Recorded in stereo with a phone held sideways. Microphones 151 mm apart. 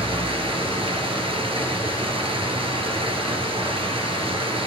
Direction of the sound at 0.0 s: 35° right (ahead or behind).